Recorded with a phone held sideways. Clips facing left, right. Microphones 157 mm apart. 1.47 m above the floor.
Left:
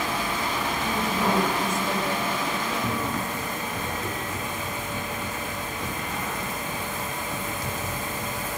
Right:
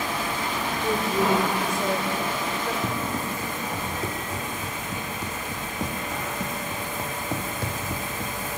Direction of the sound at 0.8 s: 65° right (ahead or behind).